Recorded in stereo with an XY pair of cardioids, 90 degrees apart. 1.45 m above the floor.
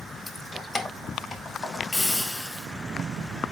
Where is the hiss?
40° left, 5 m.